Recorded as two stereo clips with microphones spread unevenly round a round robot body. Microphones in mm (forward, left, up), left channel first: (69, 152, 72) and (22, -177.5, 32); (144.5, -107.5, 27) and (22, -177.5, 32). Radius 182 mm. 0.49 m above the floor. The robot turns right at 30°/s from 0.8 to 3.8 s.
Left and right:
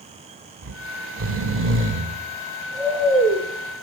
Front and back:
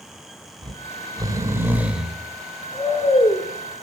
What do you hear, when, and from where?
0.6 s snoring: 105° right, 1.4 m; by 3.4 s 25° right, 1.4 m